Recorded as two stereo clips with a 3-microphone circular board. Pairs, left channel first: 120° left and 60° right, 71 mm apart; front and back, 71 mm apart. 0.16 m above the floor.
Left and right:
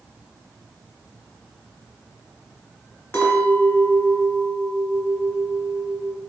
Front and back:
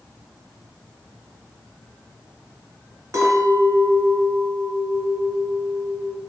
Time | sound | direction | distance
3.1 | a clink | 165° left | 0.9 m